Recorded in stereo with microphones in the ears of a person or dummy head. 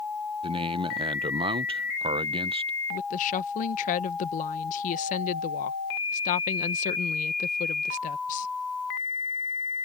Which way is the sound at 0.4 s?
30° right (ahead or behind).